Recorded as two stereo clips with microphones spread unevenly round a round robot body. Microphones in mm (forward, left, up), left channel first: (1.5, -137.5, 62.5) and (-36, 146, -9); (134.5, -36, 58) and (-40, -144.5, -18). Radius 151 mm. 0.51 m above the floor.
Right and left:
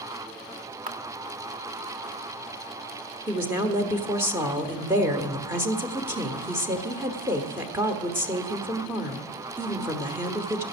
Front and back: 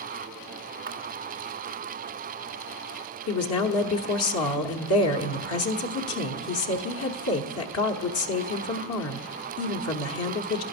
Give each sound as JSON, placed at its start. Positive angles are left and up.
{"t": 0.9, "sound": "a camera shutter", "azimuth_deg": 160, "distance_m": 1.2}
{"t": 3.3, "sound": "a woman speaking", "azimuth_deg": 25, "distance_m": 1.4}